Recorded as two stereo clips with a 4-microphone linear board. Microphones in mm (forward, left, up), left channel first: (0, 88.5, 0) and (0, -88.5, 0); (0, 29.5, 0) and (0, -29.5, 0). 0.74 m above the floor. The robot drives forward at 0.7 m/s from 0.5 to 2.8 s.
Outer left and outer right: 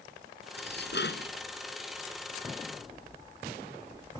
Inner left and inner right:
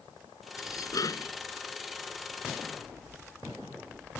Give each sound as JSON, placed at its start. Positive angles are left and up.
{"t": 0.6, "sound": "dishes clattering", "side_deg": 80}